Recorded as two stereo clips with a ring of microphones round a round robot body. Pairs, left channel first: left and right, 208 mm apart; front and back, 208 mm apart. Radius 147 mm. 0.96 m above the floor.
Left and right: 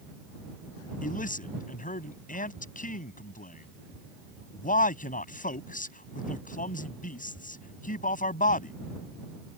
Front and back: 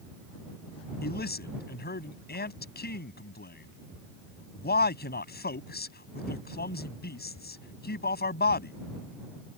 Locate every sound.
1.0 s a man speaking: 40° left